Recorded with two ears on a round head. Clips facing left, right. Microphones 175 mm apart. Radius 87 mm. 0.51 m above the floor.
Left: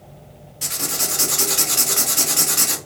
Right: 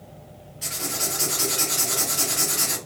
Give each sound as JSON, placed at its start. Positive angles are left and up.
{"t": 0.6, "sound": "writing", "side_deg": 60, "distance_m": 0.8}